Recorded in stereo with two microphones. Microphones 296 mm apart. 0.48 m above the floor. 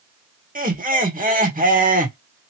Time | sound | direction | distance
0.6 | laughter | 30° right (ahead or behind) | 1.2 m